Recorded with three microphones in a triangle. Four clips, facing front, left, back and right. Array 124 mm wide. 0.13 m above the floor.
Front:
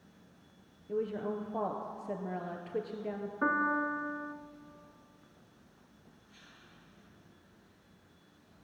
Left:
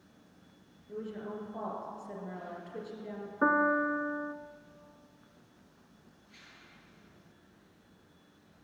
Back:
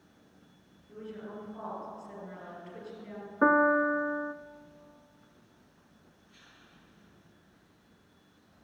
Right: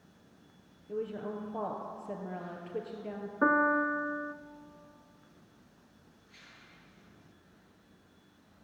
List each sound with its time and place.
0.9 s a woman speaking: 25° right, 2 m
3.4 s a piano: 170° right, 0.5 m